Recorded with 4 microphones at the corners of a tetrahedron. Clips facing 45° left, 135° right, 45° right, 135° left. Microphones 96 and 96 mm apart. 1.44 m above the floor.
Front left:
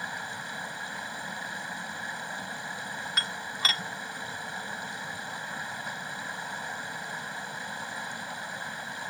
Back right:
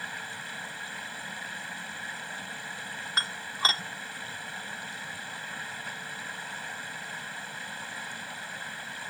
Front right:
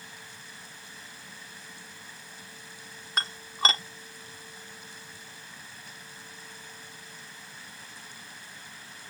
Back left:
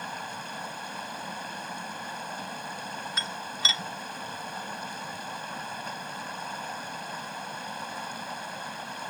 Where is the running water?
115° left.